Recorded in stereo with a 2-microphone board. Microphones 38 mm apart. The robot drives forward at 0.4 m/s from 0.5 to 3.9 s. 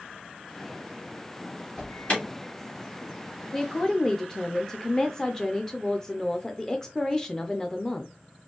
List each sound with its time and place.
1.8 s an alarm: 35° left (ahead or behind), 2 m
3.5 s a woman speaking: 15° left (ahead or behind), 0.6 m